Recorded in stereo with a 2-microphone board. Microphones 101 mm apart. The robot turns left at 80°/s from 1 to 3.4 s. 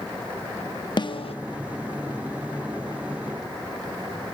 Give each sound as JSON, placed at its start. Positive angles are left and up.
{"t": 1.0, "sound": "a snare drum", "side_deg": 50, "distance_m": 1.0}